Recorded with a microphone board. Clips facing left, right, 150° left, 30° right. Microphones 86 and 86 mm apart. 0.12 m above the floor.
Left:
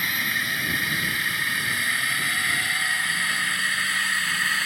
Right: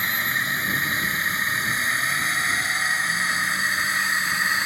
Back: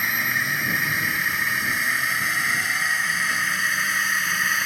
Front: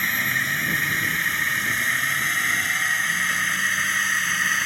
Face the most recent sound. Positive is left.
turn(degrees=-130)